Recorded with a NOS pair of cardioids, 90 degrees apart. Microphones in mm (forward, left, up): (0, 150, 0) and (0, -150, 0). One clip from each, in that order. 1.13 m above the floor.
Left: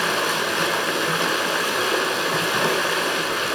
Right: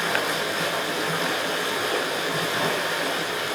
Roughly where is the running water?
Ahead left.